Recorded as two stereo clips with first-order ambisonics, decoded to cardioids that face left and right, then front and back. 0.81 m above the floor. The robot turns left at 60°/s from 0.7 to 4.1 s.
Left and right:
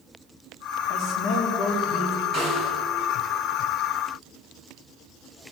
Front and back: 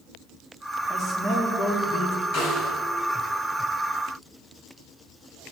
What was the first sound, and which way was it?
A man speaking, 95° left.